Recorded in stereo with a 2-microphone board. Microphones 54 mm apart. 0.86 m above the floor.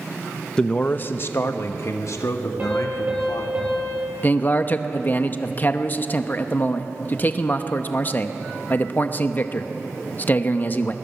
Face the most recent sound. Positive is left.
turn(degrees=35)  # may be behind; listen again after turning